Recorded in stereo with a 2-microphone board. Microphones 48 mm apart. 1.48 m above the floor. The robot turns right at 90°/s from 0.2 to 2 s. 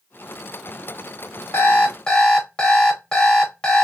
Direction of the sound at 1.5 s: 115° left.